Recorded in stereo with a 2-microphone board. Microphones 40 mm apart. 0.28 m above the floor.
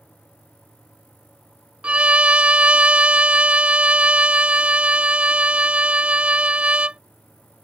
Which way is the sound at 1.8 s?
30° right (ahead or behind).